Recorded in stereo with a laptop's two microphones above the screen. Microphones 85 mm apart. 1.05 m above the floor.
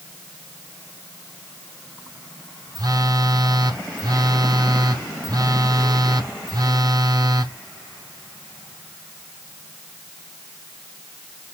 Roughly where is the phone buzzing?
Right.